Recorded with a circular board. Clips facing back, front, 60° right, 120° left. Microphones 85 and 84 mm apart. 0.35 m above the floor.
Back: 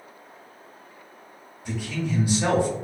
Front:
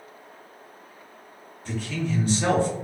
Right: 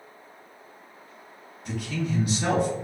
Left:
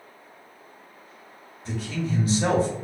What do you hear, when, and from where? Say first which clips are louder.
1.6 s a man speaking: even, even; 110° left, 0.9 m